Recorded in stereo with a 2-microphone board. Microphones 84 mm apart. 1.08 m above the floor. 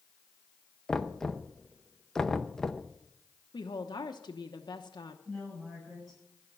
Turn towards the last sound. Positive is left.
turn(degrees=-5)  # may be behind; listen again after turning